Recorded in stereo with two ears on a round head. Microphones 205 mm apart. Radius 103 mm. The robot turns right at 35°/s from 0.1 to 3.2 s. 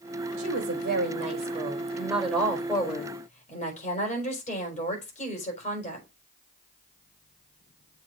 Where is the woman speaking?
65° right, 4.5 m; by 6.1 s 35° left, 4.5 m.